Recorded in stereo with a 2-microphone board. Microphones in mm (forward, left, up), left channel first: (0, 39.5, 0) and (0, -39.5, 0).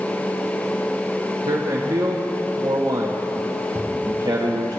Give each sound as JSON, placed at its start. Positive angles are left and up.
{"t": 1.4, "sound": "a man speaking", "side_deg": -70, "distance_m": 1.3}
{"t": 3.8, "sound": "a cupboard door", "side_deg": -15, "distance_m": 2.0}